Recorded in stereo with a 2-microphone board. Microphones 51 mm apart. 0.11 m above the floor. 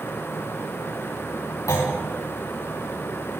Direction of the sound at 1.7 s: 70° left (ahead or behind).